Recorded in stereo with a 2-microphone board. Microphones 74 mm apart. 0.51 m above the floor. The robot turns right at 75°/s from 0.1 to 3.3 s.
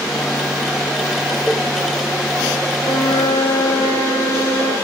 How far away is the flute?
About 6.5 m.